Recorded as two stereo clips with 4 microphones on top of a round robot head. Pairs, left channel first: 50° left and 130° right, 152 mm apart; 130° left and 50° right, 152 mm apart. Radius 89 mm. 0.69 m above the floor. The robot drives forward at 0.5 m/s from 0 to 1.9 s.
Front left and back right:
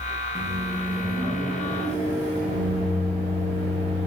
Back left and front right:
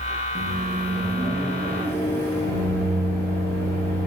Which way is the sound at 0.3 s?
70° right.